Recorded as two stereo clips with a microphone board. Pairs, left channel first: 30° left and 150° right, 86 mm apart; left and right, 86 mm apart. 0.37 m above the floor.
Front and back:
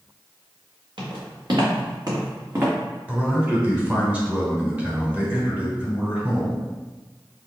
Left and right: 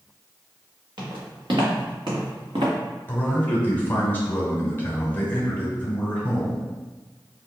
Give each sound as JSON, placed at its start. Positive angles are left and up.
{"t": 1.0, "sound": "footsteps", "azimuth_deg": -120, "distance_m": 1.9}
{"t": 3.1, "sound": "a man speaking", "azimuth_deg": 145, "distance_m": 1.0}